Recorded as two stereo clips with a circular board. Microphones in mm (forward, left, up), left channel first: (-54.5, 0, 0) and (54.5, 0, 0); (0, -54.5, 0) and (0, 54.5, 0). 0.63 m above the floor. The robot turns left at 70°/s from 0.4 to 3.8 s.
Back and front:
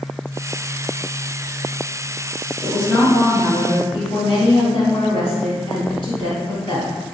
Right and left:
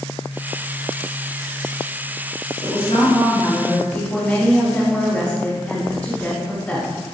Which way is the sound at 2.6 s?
90° right.